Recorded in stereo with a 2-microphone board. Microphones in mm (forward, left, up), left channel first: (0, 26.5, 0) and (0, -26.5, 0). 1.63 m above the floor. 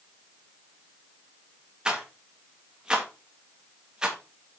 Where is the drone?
I don't hear a drone.